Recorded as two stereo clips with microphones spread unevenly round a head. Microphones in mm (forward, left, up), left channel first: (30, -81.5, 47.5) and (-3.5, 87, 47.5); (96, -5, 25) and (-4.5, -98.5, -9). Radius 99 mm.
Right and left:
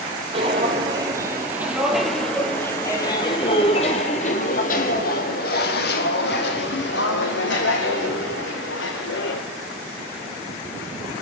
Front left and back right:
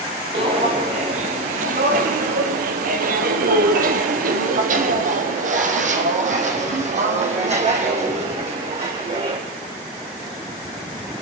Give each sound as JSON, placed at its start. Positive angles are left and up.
{"t": 0.3, "sound": "footsteps", "azimuth_deg": 160, "distance_m": 2.5}